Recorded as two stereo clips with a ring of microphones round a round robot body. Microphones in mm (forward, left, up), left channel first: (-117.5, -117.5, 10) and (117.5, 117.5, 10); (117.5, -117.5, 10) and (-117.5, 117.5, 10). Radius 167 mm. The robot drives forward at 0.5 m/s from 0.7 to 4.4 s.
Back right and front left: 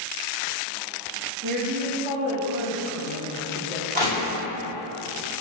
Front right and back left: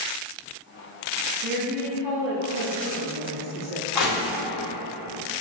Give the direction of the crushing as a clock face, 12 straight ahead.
2 o'clock.